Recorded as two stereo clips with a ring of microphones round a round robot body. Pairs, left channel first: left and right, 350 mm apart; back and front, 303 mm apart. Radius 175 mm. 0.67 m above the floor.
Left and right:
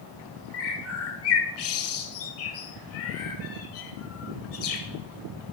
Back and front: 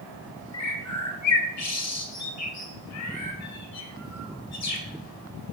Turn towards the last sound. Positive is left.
turn(degrees=145)